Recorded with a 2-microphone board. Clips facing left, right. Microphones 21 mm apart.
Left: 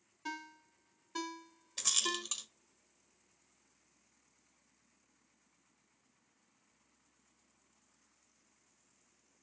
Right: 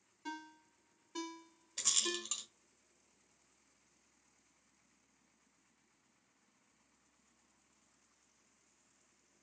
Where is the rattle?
5° left (ahead or behind), 1.1 m.